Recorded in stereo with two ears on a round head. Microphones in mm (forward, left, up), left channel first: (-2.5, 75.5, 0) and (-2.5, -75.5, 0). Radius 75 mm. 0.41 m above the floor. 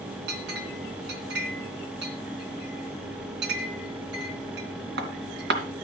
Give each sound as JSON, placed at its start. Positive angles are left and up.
{"t": 0.3, "sound": "a clink", "side_deg": -70, "distance_m": 2.5}